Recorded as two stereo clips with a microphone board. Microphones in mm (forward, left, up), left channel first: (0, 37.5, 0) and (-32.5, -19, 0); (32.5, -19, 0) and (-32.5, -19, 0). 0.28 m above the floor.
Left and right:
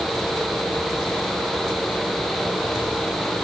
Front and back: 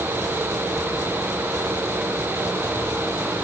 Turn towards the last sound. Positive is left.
No sound to turn to.